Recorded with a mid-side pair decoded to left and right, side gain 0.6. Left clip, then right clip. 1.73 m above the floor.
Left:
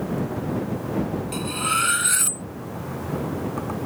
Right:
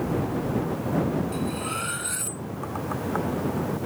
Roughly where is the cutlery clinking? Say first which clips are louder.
Left 6 dB; ahead left.